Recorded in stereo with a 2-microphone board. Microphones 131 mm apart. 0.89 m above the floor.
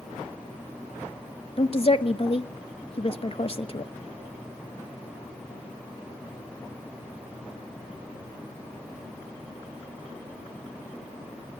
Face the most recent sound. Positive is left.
turn(degrees=45)  # may be behind; listen again after turning